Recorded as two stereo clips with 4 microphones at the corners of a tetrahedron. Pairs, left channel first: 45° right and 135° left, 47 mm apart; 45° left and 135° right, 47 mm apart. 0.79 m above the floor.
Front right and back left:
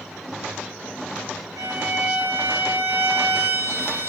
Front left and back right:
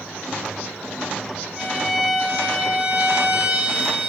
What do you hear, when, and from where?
1.6 s a violin: 145° left, 5.5 m